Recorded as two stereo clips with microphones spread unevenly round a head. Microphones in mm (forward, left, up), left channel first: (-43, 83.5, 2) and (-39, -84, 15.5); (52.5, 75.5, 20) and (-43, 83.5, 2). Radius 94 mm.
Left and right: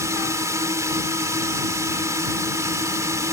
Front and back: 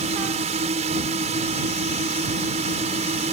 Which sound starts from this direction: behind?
A drone, at 0.0 s.